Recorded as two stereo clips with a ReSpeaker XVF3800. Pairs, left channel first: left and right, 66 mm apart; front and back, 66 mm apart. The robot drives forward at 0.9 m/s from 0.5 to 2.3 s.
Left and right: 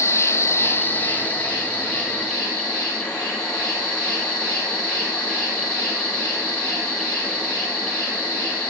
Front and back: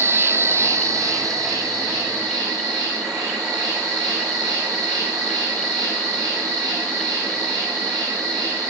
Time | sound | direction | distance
0.0 | an insect | 135° left | 0.9 m